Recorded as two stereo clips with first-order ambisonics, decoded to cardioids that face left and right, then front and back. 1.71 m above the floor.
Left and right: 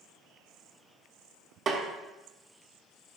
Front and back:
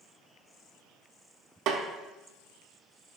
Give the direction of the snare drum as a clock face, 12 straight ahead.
5 o'clock.